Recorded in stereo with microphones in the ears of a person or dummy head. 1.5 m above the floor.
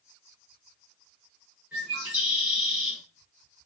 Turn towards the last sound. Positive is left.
turn(degrees=-5)  # may be behind; listen again after turning